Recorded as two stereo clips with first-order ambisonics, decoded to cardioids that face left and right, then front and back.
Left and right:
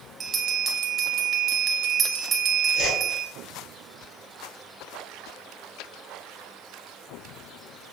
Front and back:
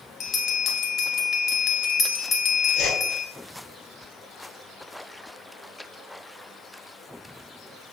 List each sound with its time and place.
0.2 s a bell: 40° right, 0.6 m
2.8 s a whoosh: 50° left, 1.4 m